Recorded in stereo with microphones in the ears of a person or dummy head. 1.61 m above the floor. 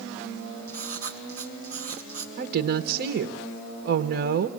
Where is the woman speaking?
60° right (ahead or behind), 1.4 m.